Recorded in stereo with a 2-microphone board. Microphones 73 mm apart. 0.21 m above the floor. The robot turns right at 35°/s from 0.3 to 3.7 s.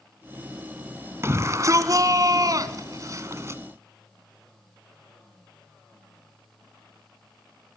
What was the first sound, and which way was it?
A shout, 130° right.